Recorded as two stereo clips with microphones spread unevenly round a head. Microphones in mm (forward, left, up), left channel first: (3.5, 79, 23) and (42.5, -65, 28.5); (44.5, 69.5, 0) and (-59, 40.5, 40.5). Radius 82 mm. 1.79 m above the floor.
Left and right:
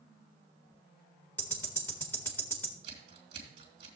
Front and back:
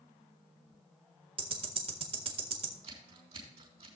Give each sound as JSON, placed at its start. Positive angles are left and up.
{"t": 1.4, "sound": "ticking", "azimuth_deg": -175, "distance_m": 1.5}
{"t": 2.8, "sound": "scissors", "azimuth_deg": -130, "distance_m": 3.0}